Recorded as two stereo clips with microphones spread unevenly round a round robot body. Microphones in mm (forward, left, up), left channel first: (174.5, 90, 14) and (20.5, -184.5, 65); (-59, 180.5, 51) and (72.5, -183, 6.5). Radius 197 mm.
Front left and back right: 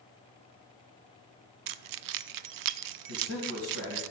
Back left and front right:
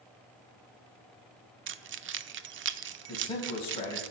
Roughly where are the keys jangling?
Behind right.